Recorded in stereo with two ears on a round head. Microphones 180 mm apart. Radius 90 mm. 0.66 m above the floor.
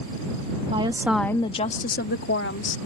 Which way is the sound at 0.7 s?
30° right (ahead or behind).